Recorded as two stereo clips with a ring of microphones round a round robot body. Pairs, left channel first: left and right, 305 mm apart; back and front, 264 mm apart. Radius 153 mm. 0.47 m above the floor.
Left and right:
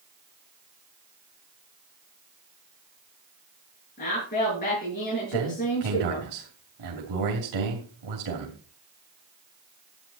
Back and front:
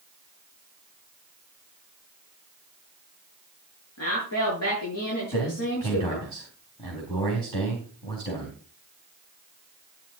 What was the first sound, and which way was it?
A woman speaking, 155° left.